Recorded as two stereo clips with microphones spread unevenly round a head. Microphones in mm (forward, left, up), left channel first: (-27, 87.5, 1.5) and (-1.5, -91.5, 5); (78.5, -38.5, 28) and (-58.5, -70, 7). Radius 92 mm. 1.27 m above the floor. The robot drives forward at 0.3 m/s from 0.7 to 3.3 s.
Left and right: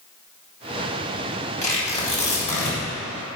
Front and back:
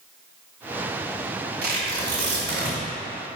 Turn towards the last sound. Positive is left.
turn(degrees=150)